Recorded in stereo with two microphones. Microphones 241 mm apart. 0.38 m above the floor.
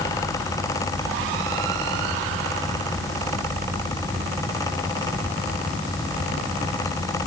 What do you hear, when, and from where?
Only background noise.